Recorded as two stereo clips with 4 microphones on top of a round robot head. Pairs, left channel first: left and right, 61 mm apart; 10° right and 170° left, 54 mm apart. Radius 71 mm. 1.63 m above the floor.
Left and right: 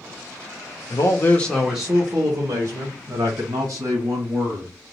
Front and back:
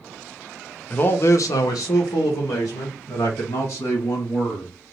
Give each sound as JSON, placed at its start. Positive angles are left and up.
{"t": 0.9, "sound": "a man speaking", "azimuth_deg": 50, "distance_m": 0.7}